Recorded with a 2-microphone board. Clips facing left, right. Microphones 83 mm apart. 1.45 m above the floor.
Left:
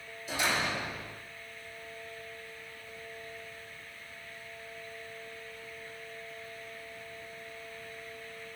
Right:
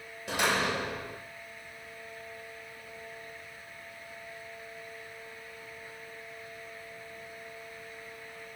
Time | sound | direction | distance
0.3 | a door slam | 70° right (ahead or behind) | 4.5 m